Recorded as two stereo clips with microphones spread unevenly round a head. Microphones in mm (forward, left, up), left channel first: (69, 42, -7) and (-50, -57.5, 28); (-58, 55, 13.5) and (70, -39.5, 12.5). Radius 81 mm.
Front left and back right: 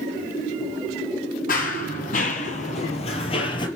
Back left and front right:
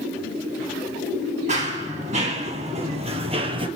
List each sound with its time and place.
1.5 s running footsteps: 5° left, 3 m; by 3.7 s 20° right, 1.9 m